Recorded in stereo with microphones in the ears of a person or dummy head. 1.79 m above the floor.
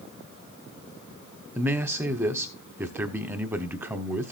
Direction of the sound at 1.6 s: 5° right (ahead or behind).